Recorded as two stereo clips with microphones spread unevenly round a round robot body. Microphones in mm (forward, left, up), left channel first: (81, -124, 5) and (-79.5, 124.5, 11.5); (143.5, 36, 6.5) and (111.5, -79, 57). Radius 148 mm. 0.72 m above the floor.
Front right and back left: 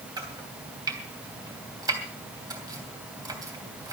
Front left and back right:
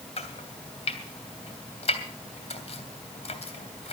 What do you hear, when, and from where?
0.2 s chopping: 45° left, 3 m